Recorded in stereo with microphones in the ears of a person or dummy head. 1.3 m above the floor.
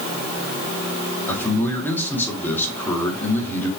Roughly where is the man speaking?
Centre.